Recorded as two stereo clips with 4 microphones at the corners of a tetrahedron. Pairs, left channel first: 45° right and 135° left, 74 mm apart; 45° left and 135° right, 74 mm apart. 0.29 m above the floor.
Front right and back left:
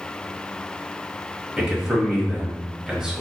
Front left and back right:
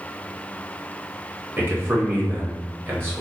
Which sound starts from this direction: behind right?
A man speaking, at 1.6 s.